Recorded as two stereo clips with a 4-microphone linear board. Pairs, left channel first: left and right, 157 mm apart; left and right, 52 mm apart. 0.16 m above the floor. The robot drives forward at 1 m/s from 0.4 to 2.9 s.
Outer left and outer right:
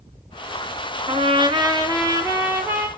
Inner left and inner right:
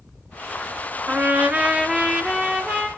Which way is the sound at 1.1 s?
40° right (ahead or behind).